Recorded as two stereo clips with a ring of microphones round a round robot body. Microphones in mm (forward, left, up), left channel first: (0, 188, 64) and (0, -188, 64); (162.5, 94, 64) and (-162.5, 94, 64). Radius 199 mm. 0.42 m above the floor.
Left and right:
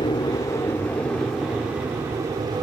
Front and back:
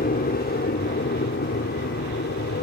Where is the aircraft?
25° left; by 2.6 s 20° right.